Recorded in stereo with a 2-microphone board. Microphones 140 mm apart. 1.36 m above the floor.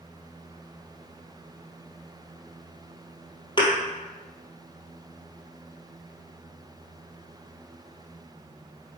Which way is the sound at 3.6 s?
35° left (ahead or behind).